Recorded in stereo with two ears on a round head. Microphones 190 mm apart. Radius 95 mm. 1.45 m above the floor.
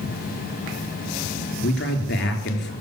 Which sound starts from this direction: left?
A man speaking, at 1.6 s.